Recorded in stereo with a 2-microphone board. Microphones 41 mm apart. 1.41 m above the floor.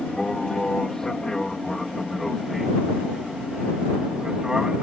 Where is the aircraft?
20° left (ahead or behind); by 4.8 s 20° right (ahead or behind).